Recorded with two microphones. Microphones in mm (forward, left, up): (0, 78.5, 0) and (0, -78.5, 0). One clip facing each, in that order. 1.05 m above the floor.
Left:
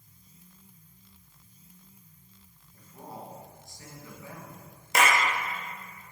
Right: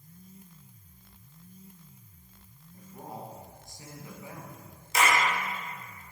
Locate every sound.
2.7 s a man speaking: 20° right (ahead or behind), 1.3 m
4.9 s a clap: 70° left (ahead or behind), 0.8 m